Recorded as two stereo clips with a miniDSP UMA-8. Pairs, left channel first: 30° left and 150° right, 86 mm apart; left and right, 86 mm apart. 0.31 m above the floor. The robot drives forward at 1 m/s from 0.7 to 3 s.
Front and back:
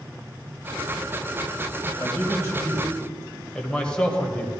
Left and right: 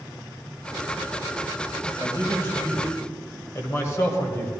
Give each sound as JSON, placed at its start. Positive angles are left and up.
{"t": 2.0, "sound": "a man speaking", "azimuth_deg": 35, "distance_m": 1.6}